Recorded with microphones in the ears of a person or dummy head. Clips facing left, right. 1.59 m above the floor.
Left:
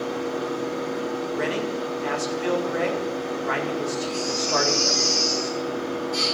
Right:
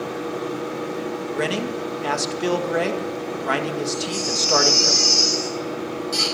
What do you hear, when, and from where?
0.0 s a machine running: 30° right (ahead or behind), 8.5 m
1.3 s a man speaking: 65° right (ahead or behind), 1.9 m
3.9 s a baby crying: 85° right, 7 m